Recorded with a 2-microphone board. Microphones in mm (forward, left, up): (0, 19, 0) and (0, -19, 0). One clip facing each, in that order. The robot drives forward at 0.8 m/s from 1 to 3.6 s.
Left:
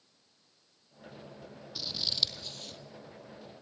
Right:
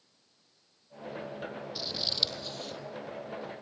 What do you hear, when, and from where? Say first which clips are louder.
1.8 s scissors: even; 5° right (ahead or behind), 2.5 m